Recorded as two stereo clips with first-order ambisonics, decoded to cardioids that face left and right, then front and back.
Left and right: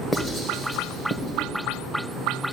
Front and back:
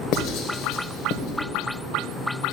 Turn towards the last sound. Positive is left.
turn(degrees=20)